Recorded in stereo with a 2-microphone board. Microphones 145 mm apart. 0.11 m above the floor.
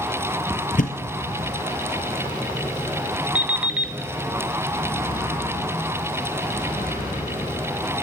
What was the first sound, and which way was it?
A thud, 60° left (ahead or behind).